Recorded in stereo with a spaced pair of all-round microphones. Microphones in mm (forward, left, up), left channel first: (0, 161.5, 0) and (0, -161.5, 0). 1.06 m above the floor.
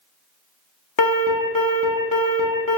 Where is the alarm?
75° left (ahead or behind), 0.6 m.